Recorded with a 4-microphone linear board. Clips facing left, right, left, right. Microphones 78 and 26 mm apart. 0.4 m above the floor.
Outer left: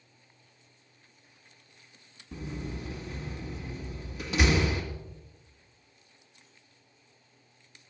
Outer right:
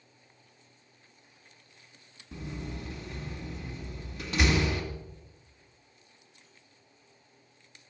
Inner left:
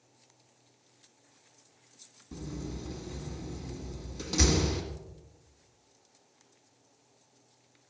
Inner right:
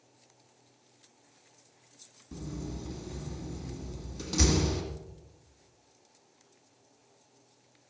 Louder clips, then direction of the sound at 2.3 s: Outer left 1 dB, even; 5° left (ahead or behind).